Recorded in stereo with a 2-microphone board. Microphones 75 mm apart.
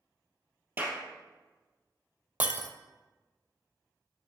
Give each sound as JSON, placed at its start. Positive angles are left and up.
{"t": 0.8, "sound": "a clap", "side_deg": -20, "distance_m": 3.0}
{"t": 2.4, "sound": "breaking glass", "side_deg": -20, "distance_m": 0.6}